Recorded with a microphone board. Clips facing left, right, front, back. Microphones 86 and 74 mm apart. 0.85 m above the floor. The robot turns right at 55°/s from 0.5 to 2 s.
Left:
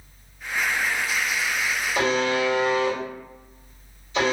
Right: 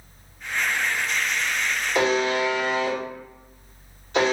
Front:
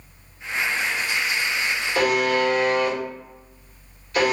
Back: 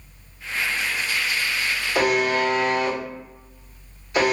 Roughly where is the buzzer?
Right.